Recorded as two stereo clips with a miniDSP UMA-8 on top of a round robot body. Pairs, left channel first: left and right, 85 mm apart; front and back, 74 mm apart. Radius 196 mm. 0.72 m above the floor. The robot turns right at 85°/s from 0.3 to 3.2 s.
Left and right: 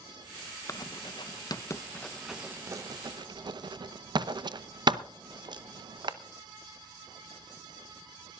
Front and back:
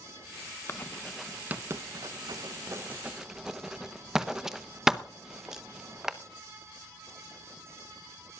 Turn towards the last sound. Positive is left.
turn(degrees=-95)